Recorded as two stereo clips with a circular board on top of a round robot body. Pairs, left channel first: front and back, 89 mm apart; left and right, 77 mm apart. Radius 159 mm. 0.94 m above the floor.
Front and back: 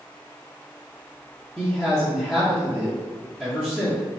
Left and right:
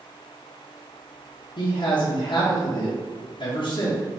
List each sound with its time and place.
1.6 s a man speaking: 80° left, 1.3 m